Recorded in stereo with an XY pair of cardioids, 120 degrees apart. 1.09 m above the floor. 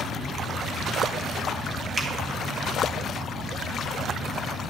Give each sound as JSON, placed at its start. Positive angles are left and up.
{"t": 2.0, "sound": "a finger snap", "azimuth_deg": -20, "distance_m": 1.6}